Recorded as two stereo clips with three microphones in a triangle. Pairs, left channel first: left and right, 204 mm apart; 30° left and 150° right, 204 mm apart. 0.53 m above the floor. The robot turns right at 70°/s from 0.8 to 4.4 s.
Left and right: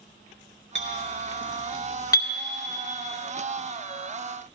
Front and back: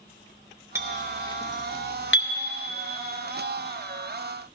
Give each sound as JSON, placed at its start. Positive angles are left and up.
{"t": 0.8, "sound": "a clink", "azimuth_deg": -75, "distance_m": 0.9}